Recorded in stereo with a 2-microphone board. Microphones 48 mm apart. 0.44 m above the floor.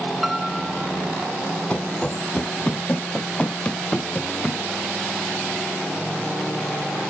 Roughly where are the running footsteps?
Left.